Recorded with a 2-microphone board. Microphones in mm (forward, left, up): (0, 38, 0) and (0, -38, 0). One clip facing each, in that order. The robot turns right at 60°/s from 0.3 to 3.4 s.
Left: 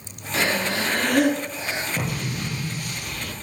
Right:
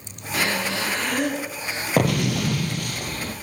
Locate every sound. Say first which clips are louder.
0.3 s breathing: left 1 dB; 25° left, 4 m; by 1.9 s 115° left, 4 m
2.0 s an explosion: right 8 dB; 115° right, 1.3 m; by 3.3 s 35° right, 1.3 m